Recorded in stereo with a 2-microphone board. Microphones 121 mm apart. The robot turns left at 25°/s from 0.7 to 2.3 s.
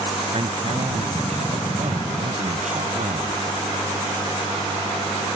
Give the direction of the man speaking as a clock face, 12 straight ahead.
2 o'clock.